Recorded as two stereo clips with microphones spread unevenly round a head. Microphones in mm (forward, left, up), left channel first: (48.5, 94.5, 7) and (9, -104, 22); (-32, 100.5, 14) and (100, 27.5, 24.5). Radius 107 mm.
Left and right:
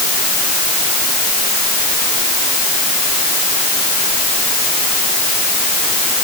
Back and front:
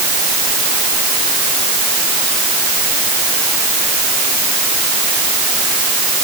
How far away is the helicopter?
I don't hear a helicopter.